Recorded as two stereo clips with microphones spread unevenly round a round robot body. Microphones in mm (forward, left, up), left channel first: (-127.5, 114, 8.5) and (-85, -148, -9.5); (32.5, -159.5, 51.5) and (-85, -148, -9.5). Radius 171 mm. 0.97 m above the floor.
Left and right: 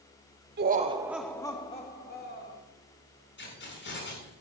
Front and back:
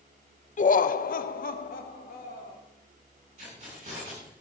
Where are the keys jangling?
145° left, 8 m.